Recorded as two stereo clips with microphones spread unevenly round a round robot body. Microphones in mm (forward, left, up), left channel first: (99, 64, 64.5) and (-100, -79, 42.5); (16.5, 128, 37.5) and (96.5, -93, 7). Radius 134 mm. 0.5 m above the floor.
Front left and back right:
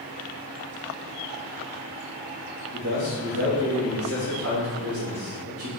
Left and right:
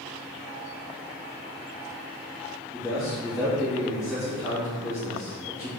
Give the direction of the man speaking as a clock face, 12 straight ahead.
6 o'clock.